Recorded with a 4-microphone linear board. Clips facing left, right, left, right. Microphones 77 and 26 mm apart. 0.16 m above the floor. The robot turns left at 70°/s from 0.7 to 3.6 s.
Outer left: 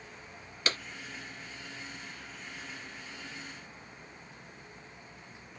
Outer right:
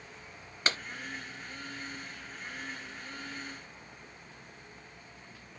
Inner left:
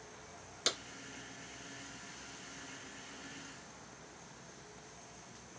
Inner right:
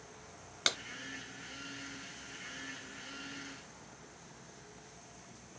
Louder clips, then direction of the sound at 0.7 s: Outer right 2 dB, inner right 3 dB; 35° right (ahead or behind).